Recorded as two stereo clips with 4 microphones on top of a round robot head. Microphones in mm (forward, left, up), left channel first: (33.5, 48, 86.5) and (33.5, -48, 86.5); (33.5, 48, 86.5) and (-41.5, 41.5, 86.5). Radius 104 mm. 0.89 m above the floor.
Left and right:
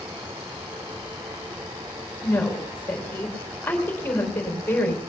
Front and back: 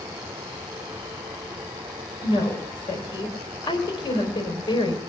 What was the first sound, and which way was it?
A woman speaking, 20° left.